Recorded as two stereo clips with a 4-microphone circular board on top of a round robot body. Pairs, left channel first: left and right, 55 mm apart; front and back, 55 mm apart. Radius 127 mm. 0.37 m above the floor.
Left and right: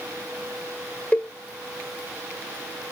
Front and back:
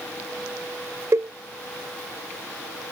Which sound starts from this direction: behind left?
A cowbell, at 1.1 s.